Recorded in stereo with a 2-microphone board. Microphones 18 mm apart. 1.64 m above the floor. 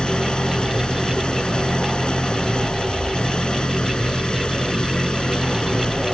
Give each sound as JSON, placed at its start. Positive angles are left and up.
{"t": 0.0, "sound": "an engine running", "side_deg": 60}